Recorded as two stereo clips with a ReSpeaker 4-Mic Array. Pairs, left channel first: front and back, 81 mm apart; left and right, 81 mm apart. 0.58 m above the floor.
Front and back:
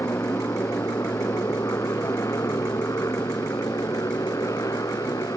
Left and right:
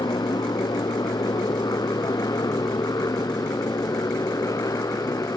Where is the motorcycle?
55° left; by 5.4 s 45° left.